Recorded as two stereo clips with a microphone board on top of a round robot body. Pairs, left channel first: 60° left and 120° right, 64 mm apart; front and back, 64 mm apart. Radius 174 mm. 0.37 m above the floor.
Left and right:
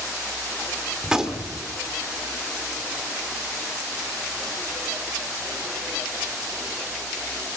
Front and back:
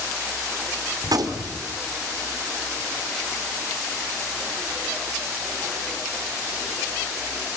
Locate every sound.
1.0 s a gunshot: 160° left, 1.8 m